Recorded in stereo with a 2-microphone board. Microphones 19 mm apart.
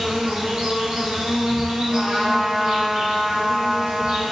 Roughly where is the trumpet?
Right.